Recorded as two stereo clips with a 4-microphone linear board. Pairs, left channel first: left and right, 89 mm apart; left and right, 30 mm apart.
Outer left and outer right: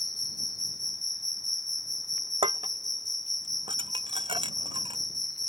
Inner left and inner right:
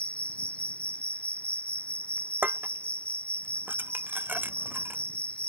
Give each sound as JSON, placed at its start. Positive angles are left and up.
{"t": 0.0, "sound": "an insect", "side_deg": 50}
{"t": 2.4, "sound": "dishes clattering", "side_deg": -80}